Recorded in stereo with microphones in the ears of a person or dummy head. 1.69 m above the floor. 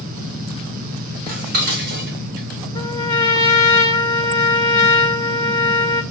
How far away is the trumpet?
About 2.5 m.